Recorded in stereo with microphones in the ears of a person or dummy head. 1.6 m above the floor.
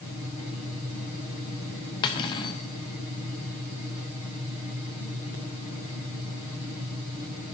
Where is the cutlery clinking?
20° left (ahead or behind), 0.8 m.